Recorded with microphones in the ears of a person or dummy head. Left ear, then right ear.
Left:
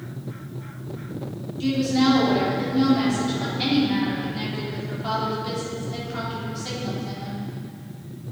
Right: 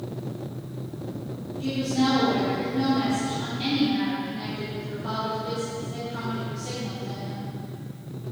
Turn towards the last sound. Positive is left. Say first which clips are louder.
# left 4 dB
turn(degrees=30)  # may be behind; listen again after turning